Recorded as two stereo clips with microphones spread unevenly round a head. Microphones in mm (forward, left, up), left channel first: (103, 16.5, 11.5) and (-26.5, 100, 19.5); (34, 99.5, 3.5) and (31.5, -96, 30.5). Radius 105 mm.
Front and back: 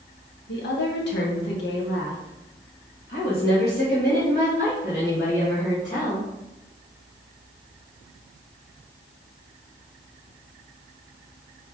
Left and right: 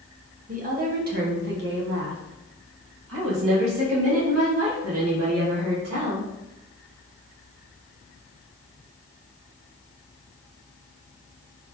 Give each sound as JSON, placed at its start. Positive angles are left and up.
{"t": 0.5, "sound": "a woman speaking", "azimuth_deg": -40, "distance_m": 1.7}